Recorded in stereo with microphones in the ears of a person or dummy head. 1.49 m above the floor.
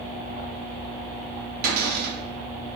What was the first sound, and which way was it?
A cupboard door, 50° right (ahead or behind).